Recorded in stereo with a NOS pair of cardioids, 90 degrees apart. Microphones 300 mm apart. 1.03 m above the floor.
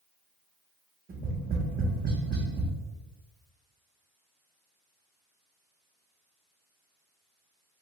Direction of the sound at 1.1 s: 30° right.